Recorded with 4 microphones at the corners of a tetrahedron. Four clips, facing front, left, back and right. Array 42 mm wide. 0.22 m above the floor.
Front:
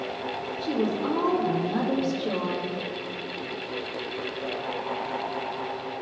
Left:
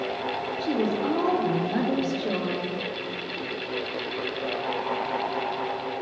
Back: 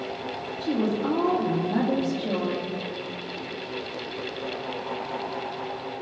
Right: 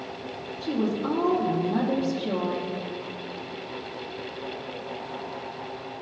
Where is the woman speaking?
110° left, 3 m.